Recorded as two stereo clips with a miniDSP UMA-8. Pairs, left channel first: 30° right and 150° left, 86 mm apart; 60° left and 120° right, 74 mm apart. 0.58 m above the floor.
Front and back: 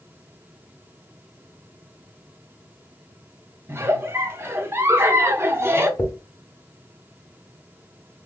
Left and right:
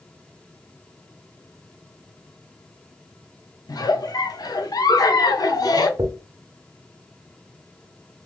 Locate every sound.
3.7 s a giggle: 90° left, 0.6 m
6.0 s a dropped coin: 90° right, 0.8 m